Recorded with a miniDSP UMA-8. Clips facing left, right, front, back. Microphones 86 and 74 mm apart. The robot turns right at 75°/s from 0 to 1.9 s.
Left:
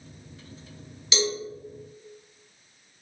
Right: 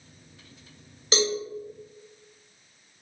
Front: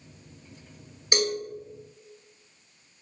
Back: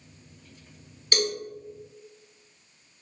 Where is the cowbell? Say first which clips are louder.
Right 2 dB, front 1 dB; 70° right, 0.6 m; by 1.4 s 55° right, 0.6 m.